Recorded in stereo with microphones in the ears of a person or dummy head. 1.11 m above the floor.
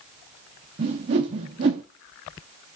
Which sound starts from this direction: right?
A whoosh, at 0.8 s.